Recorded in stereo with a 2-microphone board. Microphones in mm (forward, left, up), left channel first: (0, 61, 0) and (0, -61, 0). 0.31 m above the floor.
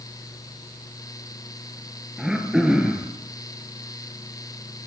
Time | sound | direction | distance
2.2 | throat clearing | 5° right (ahead or behind) | 4 m